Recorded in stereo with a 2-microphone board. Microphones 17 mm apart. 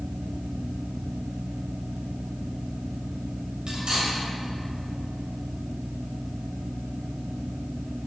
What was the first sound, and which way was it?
Cutlery clinking, 55° right (ahead or behind).